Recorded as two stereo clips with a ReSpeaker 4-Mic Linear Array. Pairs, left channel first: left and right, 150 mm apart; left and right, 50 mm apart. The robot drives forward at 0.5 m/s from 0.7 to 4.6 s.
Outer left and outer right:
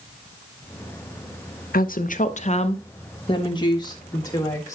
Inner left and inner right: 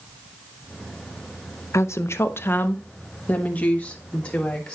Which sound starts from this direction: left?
A woman speaking, at 1.7 s.